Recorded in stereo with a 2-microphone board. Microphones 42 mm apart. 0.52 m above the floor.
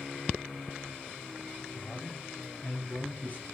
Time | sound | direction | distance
1.7 | a man speaking | 45° left (ahead or behind) | 3.5 m